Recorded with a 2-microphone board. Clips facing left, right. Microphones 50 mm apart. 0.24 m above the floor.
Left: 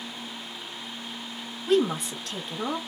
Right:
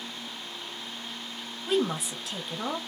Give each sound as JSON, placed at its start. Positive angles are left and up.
{"t": 1.7, "sound": "a woman speaking", "side_deg": -5, "distance_m": 1.0}